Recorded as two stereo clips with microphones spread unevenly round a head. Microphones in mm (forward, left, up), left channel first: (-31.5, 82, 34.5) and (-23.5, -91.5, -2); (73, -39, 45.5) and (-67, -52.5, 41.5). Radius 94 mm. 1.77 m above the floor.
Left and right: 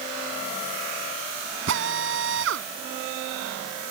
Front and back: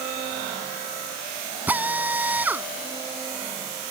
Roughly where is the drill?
Right.